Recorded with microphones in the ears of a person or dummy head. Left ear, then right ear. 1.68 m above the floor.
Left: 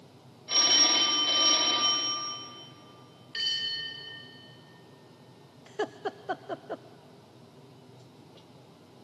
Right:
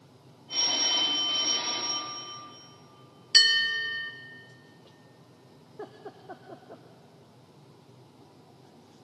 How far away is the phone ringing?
About 6 m.